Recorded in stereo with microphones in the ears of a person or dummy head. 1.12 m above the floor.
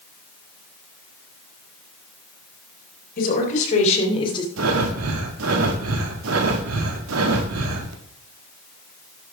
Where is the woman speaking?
50° left (ahead or behind), 4 m; by 4.5 s 25° left (ahead or behind), 2.5 m.